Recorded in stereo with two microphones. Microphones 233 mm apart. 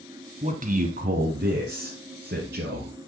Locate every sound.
0.4 s a man speaking: 30° right (ahead or behind), 1.3 m; by 2.9 s 50° right (ahead or behind), 2 m